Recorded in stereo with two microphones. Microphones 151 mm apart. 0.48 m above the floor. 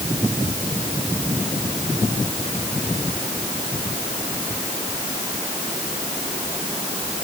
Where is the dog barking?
I don't hear a dog barking.